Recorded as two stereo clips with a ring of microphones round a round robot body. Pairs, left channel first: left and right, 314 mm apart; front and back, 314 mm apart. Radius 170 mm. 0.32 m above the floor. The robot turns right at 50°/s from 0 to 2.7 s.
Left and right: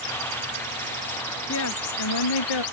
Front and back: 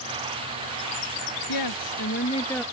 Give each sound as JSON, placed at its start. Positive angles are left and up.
{"t": 1.5, "sound": "a woman speaking", "azimuth_deg": 30}